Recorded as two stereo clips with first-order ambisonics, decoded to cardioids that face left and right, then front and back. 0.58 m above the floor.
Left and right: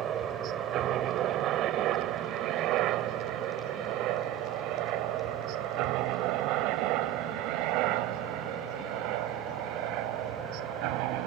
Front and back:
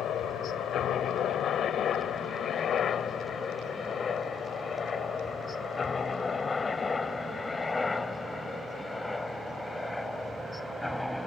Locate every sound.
0.0 s a helicopter: 45° right; by 11.3 s 85° right